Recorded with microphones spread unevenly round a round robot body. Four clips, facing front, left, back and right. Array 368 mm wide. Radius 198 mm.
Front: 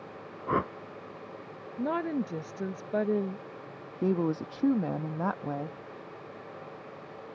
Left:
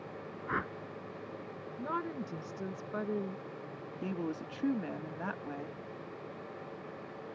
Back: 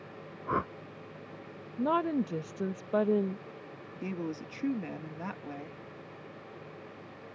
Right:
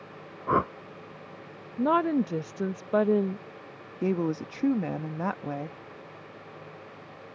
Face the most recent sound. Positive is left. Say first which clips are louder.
# right 10 dB, front 9 dB
turn(degrees=-50)